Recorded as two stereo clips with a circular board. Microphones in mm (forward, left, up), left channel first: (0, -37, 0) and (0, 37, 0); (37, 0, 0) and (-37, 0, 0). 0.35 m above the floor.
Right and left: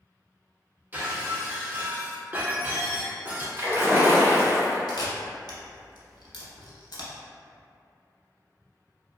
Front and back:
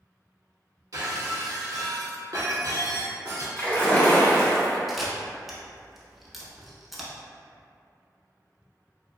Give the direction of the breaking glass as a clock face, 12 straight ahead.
7 o'clock.